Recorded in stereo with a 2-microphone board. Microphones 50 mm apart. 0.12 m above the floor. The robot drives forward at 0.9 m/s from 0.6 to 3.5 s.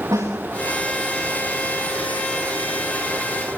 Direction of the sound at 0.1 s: 75° right (ahead or behind).